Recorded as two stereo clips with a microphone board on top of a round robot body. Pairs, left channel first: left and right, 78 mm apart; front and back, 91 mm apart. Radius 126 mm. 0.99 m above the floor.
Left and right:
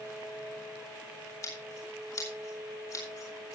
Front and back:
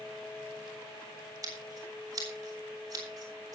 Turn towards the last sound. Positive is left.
turn(degrees=130)